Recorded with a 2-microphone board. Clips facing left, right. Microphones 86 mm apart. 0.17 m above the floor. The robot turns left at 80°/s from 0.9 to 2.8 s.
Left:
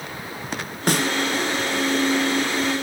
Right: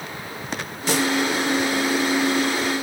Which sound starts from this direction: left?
A snare drum, at 0.9 s.